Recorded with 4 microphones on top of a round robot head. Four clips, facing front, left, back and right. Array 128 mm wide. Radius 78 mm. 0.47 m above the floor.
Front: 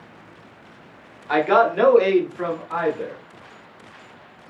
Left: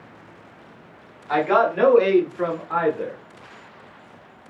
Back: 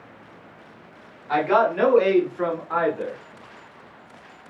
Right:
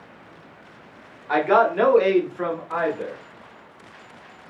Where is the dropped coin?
No dropped coin in this recording.